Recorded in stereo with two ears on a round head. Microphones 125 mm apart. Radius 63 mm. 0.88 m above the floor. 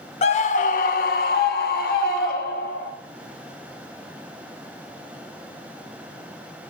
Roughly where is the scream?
Left.